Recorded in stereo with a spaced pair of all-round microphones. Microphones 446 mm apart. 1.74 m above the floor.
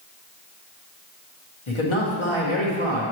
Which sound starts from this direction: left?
A man speaking, at 1.7 s.